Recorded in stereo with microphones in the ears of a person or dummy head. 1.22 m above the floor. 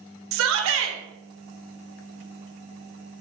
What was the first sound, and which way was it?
A shout, 65° right (ahead or behind).